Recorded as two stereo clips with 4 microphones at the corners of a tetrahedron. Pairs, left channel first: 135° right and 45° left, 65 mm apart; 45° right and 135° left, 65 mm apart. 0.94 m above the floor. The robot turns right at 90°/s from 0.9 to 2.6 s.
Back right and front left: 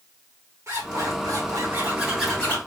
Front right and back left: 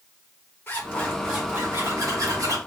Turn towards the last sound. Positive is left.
turn(degrees=165)